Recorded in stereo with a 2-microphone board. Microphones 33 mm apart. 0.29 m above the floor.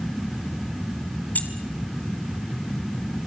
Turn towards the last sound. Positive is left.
turn(degrees=55)  # may be behind; listen again after turning